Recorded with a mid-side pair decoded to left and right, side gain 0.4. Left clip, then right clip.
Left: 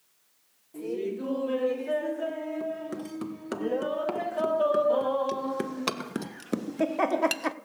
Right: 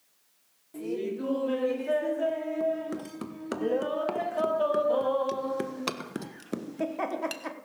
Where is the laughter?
25° right, 4 m; by 7.5 s 60° left, 1.2 m.